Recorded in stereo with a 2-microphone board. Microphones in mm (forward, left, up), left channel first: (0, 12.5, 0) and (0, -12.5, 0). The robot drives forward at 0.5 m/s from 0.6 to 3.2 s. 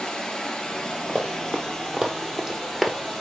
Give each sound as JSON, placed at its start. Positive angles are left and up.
{"t": 0.0, "sound": "running water", "side_deg": 40, "distance_m": 1.4}
{"t": 1.1, "sound": "running footsteps", "side_deg": -45, "distance_m": 1.6}